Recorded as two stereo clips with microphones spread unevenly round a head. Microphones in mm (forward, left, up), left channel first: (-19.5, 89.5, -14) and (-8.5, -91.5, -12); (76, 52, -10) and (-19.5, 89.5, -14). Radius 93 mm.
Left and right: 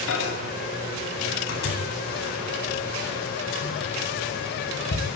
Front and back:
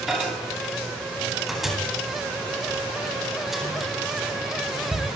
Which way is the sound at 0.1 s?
70° left.